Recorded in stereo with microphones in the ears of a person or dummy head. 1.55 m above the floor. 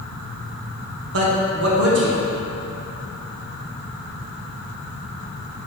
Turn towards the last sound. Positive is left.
turn(degrees=-75)  # may be behind; listen again after turning